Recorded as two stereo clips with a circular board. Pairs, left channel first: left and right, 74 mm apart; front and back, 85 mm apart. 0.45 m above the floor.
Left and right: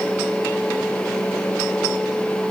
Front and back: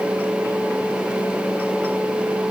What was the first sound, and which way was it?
Only background noise.